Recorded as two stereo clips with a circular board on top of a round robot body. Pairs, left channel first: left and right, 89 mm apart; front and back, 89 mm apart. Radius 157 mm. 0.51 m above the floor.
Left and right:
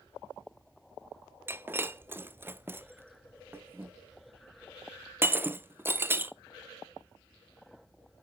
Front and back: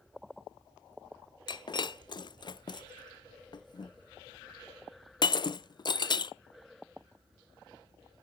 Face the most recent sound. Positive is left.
turn(degrees=-25)